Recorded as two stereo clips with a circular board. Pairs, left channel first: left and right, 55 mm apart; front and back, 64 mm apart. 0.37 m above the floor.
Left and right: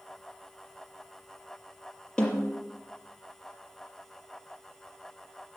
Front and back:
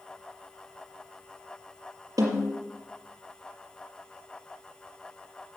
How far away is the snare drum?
About 5 m.